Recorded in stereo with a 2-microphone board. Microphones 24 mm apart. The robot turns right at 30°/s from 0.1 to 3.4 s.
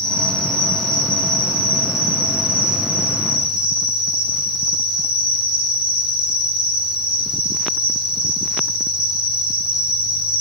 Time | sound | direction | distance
0.0 | an insect | 140° left | 7 m